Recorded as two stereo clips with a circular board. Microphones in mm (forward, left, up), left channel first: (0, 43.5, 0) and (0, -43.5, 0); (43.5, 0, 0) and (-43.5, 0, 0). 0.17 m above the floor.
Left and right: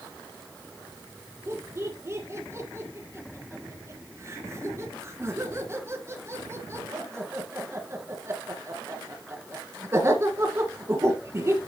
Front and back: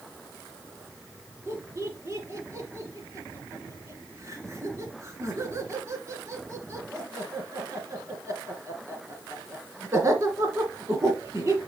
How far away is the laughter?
About 2.5 m.